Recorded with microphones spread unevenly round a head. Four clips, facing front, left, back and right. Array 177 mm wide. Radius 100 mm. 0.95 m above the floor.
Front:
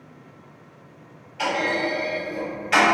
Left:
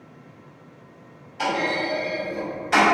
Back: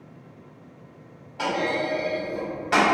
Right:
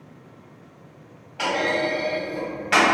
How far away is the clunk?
About 1.2 m.